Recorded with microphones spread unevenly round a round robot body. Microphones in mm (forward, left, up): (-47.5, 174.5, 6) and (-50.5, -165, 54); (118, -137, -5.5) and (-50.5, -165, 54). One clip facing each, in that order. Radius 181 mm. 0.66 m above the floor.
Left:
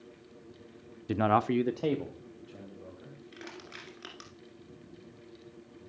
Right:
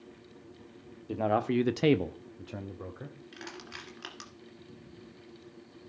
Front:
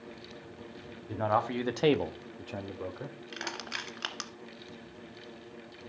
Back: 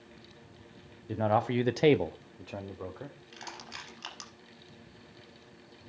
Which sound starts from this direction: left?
A man speaking, at 1.1 s.